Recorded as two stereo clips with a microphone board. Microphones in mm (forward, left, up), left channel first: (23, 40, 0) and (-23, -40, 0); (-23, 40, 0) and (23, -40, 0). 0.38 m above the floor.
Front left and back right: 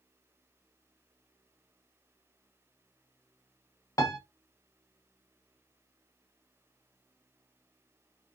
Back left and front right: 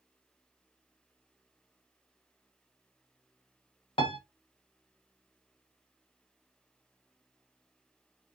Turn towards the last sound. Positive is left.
turn(degrees=110)